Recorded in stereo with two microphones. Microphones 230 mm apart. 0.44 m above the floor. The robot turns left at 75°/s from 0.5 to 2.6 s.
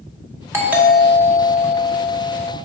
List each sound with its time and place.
0.5 s a doorbell: 10° right (ahead or behind), 1.4 m; by 2.5 s 20° left (ahead or behind), 1.4 m